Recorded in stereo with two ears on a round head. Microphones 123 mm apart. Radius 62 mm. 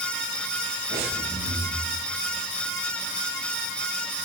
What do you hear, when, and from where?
0.9 s breathing: 80° right, 8.5 m